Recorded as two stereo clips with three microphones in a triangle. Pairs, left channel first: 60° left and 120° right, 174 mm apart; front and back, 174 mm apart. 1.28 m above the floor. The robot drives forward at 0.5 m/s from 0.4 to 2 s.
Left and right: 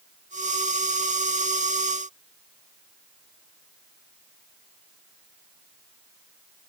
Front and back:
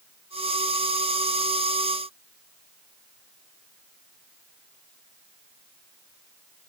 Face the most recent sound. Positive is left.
No sound to turn to.